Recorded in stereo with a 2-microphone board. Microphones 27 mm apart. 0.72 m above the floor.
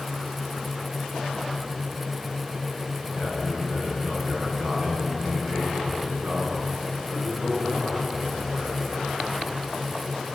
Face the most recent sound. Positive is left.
turn(degrees=-70)  # may be behind; listen again after turning